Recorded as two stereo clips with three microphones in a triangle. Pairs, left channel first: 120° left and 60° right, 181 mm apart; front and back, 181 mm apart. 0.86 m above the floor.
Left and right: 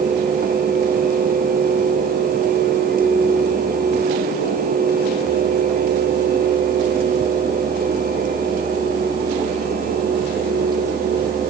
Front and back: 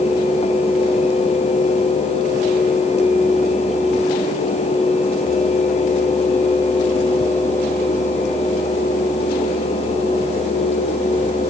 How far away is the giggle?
No giggle in this recording.